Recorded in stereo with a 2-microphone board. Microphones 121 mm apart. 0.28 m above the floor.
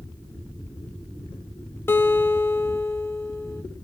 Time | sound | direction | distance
1.9 | a guitar | 20° left (ahead or behind) | 1.2 m